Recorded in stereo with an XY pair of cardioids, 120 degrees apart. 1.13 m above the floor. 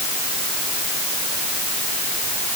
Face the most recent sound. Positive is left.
No sound to turn to.